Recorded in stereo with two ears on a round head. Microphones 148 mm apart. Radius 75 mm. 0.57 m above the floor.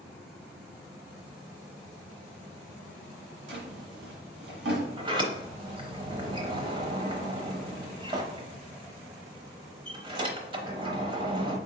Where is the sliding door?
30° right (ahead or behind), 0.8 m.